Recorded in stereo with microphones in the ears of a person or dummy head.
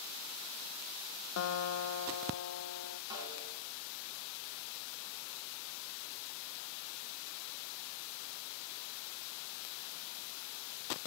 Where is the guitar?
70° left (ahead or behind), 1.0 m.